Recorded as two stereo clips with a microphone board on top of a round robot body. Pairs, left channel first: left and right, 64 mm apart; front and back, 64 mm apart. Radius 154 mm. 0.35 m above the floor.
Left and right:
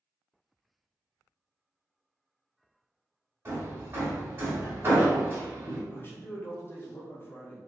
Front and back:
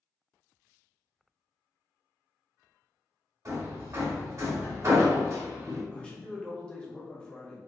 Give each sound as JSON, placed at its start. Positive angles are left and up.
{"t": 3.5, "sound": "hammering", "azimuth_deg": -145, "distance_m": 2.0}
{"t": 5.9, "sound": "a man speaking", "azimuth_deg": 65, "distance_m": 1.2}